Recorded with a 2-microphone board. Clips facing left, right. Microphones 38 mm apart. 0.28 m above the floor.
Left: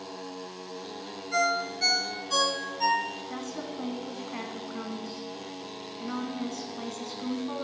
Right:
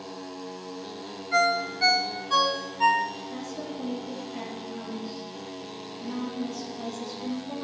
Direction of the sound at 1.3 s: 25° right (ahead or behind).